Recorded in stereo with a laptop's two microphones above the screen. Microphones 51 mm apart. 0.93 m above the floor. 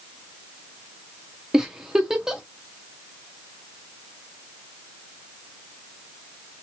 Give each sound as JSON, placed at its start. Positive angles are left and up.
{"t": 1.5, "sound": "a giggle", "side_deg": -10, "distance_m": 0.6}